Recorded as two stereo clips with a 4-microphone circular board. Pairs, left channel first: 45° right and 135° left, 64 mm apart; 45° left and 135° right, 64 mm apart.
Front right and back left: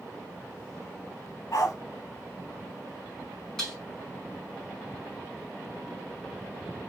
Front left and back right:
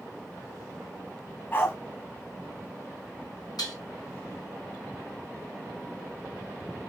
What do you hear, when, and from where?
1.5 s a dog barking: 10° right, 3 m
3.6 s dishes clattering: 35° left, 4.5 m